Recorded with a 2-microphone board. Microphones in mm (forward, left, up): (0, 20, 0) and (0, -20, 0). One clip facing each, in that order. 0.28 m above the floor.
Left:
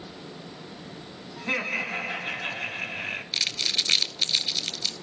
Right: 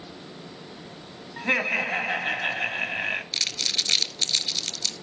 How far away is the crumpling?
About 0.7 m.